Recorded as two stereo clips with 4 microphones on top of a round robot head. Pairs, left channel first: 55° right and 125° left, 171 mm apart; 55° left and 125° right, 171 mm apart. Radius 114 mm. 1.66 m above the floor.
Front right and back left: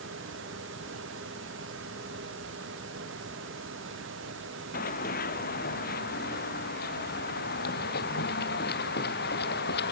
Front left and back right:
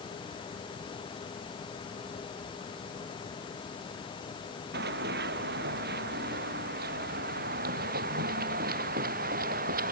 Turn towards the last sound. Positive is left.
turn(degrees=-85)